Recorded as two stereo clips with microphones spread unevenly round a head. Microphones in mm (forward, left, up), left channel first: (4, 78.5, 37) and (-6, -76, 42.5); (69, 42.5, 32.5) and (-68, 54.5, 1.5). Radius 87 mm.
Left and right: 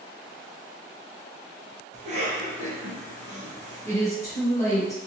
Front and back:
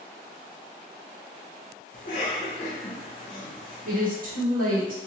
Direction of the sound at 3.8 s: 160° left.